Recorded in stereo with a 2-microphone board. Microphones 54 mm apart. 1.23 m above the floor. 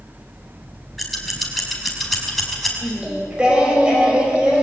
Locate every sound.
1.0 s scissors: 5° left (ahead or behind), 5.5 m
2.8 s singing: 20° right (ahead or behind), 5.5 m